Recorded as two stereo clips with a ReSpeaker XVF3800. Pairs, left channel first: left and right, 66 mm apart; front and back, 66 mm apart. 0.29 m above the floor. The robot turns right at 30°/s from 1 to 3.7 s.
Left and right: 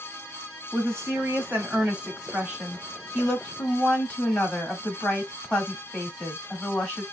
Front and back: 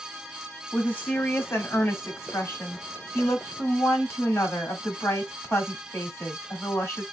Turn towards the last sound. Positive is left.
turn(degrees=25)